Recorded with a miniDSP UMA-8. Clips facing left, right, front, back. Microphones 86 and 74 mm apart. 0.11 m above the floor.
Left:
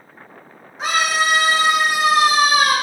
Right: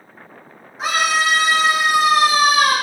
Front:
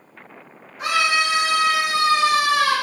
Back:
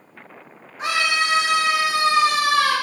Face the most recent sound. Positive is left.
turn(degrees=85)